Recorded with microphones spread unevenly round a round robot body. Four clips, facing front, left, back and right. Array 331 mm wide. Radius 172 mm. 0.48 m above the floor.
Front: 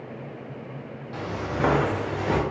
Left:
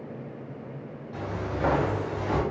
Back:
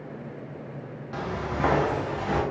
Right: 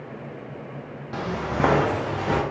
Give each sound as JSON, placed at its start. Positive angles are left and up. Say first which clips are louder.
{"t": 1.1, "sound": "footsteps", "louder": "right 5 dB, front 1 dB", "azimuth_deg": -105, "distance_m": 0.8}